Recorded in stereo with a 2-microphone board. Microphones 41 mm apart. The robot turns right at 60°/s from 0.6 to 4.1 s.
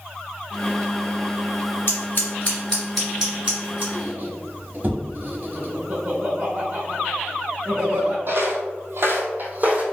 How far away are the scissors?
About 1.8 m.